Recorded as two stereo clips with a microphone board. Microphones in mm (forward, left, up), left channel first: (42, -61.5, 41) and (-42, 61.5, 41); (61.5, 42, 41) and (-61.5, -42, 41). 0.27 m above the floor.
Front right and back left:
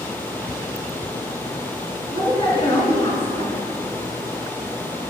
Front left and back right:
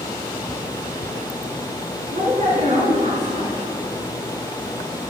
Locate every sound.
2.1 s a woman speaking: 110° right, 3.5 m